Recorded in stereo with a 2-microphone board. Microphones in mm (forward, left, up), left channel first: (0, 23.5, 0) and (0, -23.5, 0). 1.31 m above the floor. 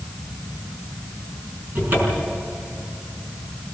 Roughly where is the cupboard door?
Right.